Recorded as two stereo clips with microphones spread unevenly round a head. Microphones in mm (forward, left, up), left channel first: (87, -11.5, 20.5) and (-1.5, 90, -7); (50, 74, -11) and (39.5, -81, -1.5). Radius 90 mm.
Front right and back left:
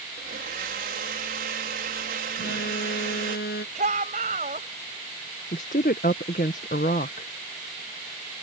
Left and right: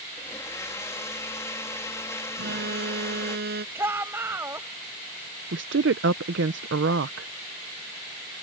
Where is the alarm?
80° right.